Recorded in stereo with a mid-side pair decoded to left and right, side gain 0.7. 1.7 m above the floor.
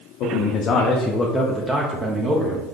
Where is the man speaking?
60° left, 0.8 m; by 2.7 s 35° right, 1.1 m.